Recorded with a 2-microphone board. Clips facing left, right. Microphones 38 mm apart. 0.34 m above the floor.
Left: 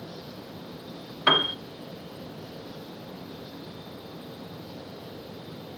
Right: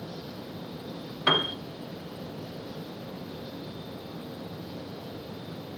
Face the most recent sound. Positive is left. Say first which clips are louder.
# left 3 dB
turn(degrees=15)  # may be behind; listen again after turning